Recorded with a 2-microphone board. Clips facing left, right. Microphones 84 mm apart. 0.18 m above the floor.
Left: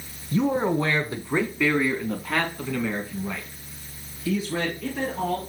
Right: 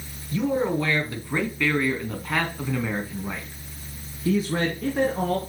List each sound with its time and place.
0.3 s a man speaking: 35° left (ahead or behind), 2 m; by 5.4 s 45° right (ahead or behind), 2.5 m